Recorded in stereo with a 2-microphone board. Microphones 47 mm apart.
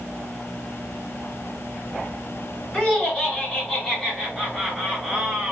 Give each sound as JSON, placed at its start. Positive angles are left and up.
{"t": 2.7, "sound": "laughter", "side_deg": 25, "distance_m": 2.0}